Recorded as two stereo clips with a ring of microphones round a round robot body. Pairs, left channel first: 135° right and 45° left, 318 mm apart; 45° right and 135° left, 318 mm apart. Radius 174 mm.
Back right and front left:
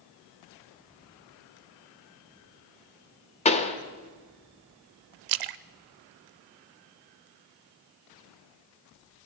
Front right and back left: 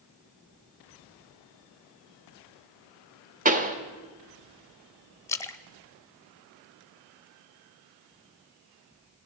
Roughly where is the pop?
Behind.